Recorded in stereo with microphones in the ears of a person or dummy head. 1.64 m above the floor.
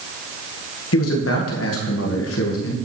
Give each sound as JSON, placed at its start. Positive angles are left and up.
{"t": 0.9, "sound": "a man speaking", "side_deg": 85, "distance_m": 2.0}